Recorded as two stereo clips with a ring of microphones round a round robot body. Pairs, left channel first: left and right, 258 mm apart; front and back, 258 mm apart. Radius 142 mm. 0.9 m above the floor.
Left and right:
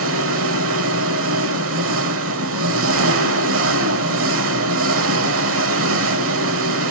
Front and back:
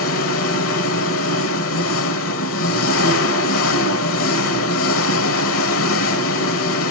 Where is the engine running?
45° right, 1.2 m.